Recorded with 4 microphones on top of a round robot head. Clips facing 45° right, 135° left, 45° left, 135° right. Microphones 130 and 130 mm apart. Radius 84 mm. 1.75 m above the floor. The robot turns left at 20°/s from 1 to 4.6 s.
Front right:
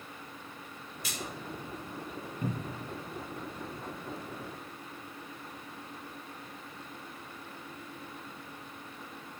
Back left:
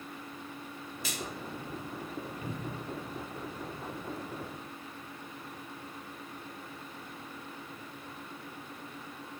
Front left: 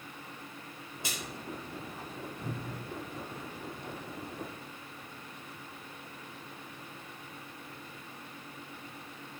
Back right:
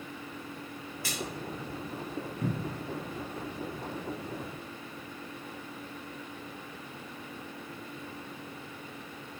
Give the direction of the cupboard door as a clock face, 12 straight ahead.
3 o'clock.